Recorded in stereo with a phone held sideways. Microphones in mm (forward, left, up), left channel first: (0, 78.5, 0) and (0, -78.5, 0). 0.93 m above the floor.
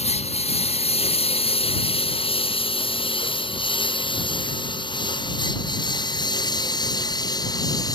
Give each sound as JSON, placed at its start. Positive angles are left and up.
{"t": 0.0, "sound": "a lawn mower", "side_deg": 40}